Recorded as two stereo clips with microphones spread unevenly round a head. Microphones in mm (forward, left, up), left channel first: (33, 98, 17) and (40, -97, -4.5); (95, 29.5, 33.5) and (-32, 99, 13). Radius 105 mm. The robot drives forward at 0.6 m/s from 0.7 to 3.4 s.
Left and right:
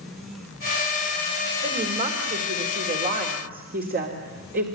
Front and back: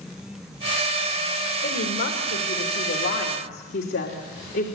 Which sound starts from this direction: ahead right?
A woman speaking, at 1.6 s.